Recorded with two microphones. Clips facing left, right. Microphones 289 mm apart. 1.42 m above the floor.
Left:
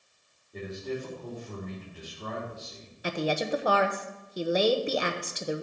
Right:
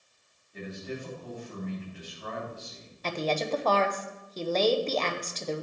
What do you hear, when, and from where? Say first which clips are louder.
0.5 s a man speaking: left 3 dB; 45° left (ahead or behind), 3.5 m
3.0 s a woman speaking: left 1 dB; 10° left (ahead or behind), 0.8 m